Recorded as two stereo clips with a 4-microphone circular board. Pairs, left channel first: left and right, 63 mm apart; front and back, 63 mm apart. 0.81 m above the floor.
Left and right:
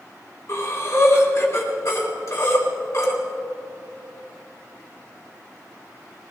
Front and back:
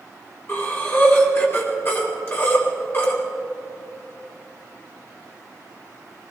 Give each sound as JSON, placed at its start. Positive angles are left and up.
{"t": 0.5, "sound": "breathing", "azimuth_deg": 50, "distance_m": 3.0}